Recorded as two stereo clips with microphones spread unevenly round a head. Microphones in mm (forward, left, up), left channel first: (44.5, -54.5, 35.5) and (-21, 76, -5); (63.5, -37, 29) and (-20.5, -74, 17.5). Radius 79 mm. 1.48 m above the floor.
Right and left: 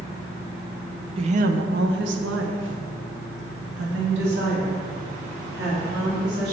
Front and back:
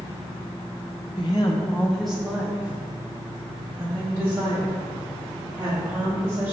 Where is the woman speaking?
55° left, 0.5 m; by 6.5 s 140° left, 3 m.